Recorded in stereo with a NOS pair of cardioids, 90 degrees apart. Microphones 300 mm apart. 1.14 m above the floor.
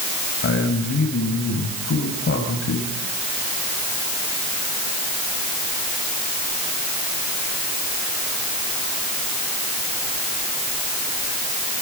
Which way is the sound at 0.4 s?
45° left.